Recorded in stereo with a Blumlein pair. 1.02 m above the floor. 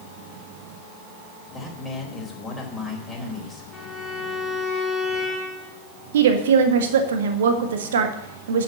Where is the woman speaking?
60° right, 1.6 m.